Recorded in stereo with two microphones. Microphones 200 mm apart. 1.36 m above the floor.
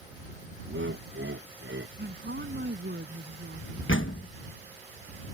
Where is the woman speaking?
60° right (ahead or behind).